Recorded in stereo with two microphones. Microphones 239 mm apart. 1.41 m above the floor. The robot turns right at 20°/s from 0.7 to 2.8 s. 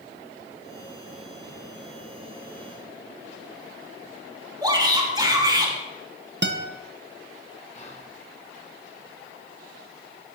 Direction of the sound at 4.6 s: 20° right (ahead or behind).